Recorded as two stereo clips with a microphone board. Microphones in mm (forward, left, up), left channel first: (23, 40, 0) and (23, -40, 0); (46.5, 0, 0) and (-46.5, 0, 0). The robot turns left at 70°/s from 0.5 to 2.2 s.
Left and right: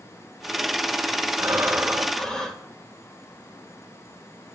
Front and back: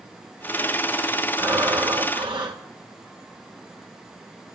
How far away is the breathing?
About 1.5 m.